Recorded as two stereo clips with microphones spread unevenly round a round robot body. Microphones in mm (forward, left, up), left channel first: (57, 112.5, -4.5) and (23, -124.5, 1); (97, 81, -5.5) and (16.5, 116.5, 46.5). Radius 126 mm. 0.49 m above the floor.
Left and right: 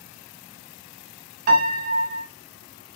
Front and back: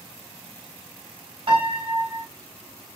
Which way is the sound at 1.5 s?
140° right.